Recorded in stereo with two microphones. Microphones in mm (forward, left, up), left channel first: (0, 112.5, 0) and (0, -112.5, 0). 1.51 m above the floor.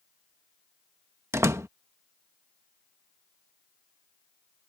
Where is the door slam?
10° right (ahead or behind).